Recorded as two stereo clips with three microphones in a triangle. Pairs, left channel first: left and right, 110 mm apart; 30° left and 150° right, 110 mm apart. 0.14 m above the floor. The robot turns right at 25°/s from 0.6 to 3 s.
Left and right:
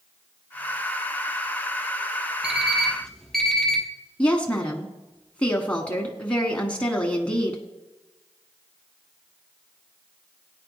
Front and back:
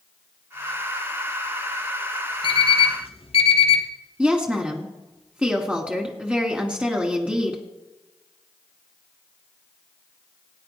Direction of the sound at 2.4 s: 10° right.